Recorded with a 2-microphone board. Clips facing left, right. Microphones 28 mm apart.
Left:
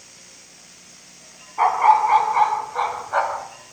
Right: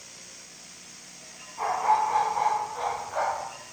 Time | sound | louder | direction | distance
1.6 | a dog barking | left 8 dB | 75° left (ahead or behind) | 2.0 m